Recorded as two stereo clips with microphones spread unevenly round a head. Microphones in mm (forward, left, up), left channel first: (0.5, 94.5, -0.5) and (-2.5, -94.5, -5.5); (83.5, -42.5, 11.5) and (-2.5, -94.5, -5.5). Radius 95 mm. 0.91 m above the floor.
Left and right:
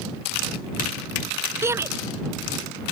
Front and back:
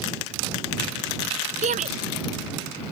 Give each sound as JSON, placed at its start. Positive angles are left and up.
{"t": 1.6, "sound": "a shout", "azimuth_deg": -170}